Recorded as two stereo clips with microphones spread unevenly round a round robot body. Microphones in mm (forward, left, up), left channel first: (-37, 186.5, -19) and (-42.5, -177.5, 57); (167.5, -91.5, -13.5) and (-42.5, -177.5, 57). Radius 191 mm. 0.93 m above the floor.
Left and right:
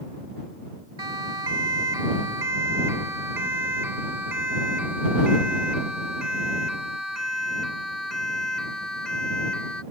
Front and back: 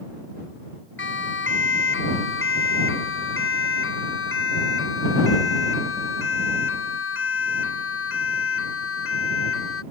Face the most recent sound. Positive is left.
turn(degrees=0)